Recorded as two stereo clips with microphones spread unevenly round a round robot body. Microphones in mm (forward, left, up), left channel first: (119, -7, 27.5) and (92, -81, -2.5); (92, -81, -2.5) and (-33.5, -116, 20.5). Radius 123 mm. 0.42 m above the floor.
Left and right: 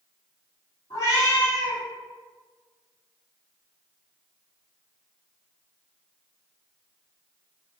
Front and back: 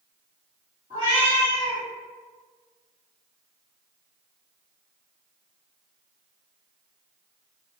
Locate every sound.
0.9 s a cat meowing: 130° left, 1.6 m